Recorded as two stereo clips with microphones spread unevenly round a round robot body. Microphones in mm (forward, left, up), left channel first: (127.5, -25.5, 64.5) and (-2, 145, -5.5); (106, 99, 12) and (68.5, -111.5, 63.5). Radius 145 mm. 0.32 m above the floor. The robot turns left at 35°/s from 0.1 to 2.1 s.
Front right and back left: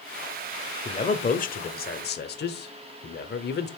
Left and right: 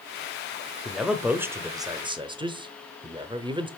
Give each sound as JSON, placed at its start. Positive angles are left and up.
{"t": 0.8, "sound": "a man speaking", "azimuth_deg": 15, "distance_m": 1.0}